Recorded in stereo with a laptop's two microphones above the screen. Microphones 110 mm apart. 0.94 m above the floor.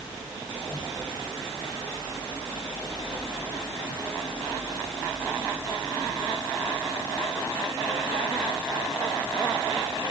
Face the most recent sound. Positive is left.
No sound to turn to.